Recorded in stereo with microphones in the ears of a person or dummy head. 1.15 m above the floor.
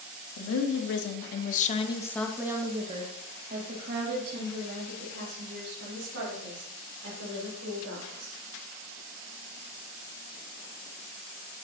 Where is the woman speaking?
70° left (ahead or behind), 1.2 m; by 8.4 s 70° right (ahead or behind), 4 m.